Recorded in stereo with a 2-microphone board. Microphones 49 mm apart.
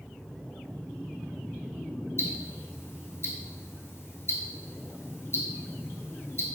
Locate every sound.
2.2 s ticking: 60° left (ahead or behind), 0.6 m